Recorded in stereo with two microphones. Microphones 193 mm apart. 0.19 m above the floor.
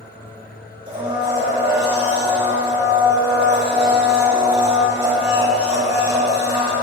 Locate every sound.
0.9 s a blender: 30° right (ahead or behind), 2.5 m